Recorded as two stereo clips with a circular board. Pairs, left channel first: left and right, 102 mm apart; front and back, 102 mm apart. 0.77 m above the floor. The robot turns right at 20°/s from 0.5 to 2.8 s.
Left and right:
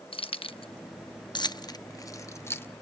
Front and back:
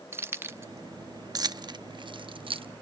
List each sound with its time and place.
0.1 s keys jangling: 115° left, 0.5 m; by 2.7 s 155° left, 0.5 m